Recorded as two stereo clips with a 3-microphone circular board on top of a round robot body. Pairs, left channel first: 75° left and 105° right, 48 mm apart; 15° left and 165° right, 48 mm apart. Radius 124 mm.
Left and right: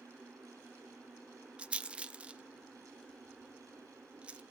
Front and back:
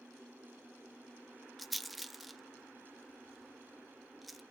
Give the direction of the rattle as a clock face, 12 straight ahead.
3 o'clock.